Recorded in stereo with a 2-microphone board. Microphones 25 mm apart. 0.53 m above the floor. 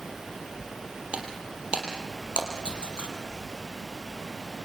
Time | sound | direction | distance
1.1 | breaking glass | 55° right (ahead or behind) | 4.5 m